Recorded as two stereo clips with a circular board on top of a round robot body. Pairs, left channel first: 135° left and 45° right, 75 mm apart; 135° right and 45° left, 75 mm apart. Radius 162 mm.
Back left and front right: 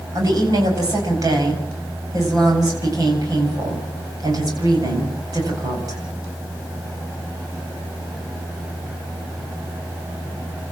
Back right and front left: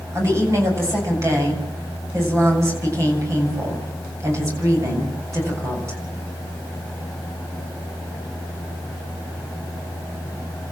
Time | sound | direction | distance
0.1 | a woman speaking | 5° right | 8 m